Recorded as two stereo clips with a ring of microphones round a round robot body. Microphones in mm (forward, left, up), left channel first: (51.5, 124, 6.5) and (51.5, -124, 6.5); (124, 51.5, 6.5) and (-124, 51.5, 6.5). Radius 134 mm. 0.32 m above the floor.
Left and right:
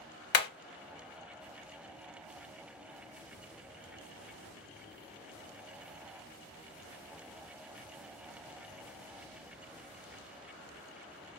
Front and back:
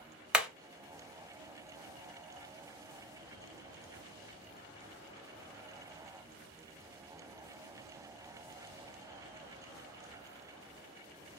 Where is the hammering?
95° left, 0.7 m.